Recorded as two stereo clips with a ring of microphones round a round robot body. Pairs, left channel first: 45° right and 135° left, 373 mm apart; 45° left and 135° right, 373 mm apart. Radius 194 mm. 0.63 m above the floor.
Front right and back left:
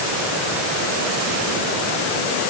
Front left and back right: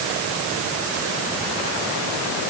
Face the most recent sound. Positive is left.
No sound to turn to.